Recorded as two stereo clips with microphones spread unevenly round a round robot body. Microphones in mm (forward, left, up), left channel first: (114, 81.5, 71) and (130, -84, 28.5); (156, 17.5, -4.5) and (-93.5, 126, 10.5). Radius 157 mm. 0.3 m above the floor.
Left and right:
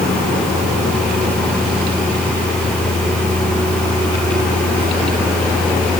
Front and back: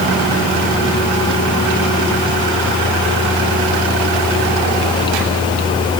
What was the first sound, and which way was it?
Only background noise.